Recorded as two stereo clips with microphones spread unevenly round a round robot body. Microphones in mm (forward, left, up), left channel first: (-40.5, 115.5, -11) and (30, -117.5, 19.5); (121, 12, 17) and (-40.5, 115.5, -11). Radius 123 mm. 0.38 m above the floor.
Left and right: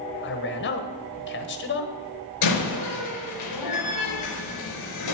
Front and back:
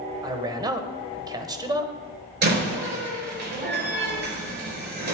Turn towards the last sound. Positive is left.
turn(degrees=110)